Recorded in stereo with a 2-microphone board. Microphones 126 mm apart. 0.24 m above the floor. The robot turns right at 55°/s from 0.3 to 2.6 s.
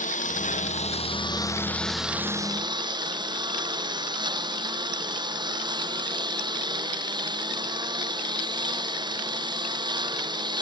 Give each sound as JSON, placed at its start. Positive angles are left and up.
{"t": 0.0, "sound": "a lawn mower", "azimuth_deg": 90}